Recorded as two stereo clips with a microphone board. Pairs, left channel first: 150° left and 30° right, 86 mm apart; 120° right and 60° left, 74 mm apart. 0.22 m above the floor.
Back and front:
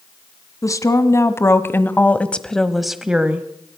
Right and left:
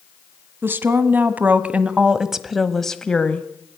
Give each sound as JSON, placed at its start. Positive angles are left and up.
{"t": 0.6, "sound": "a woman speaking", "azimuth_deg": 115, "distance_m": 1.8}